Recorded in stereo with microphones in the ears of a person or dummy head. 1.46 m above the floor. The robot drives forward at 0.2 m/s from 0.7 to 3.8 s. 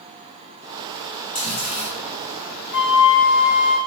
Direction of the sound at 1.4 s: 35° left (ahead or behind).